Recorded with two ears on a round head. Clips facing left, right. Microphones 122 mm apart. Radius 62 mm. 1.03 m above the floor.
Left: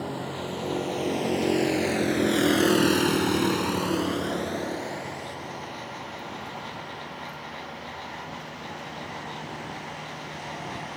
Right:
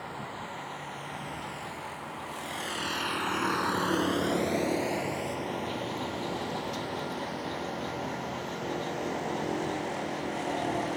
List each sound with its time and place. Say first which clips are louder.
0.0 s a vehicle: left 7 dB; 70° left (ahead or behind); by 11.0 s 45° right (ahead or behind)